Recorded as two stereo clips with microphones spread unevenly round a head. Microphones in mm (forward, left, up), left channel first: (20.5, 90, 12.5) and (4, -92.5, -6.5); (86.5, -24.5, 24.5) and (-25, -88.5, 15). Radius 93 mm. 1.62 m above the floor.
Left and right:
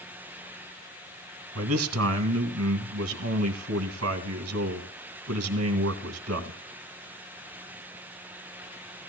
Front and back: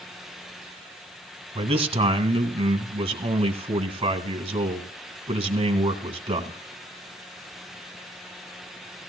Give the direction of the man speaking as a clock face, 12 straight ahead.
4 o'clock.